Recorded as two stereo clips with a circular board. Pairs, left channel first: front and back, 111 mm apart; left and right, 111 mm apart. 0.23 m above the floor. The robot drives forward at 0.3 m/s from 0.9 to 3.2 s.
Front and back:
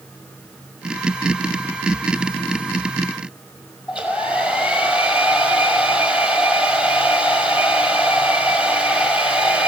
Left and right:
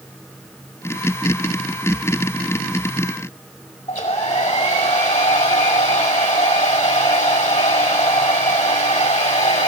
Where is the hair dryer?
100° left, 5.5 m.